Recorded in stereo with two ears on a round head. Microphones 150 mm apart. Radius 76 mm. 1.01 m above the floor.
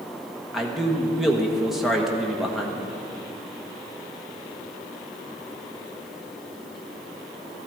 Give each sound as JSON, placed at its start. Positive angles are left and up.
{"t": 0.5, "sound": "a man speaking", "side_deg": 0, "distance_m": 1.3}